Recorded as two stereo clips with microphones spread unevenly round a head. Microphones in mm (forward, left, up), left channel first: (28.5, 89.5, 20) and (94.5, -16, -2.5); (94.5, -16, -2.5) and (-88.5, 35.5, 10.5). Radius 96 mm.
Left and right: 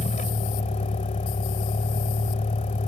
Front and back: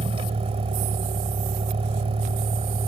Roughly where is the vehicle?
Left.